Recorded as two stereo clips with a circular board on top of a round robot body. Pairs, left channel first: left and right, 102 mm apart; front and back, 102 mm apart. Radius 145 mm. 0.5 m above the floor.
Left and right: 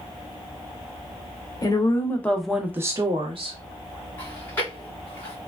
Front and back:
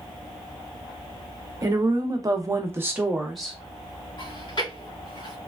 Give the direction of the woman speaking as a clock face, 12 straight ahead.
8 o'clock.